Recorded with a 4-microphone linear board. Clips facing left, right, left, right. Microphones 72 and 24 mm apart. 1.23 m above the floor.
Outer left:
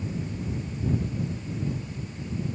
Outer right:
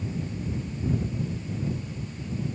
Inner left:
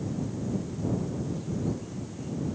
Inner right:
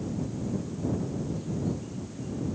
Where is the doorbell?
I don't hear a doorbell.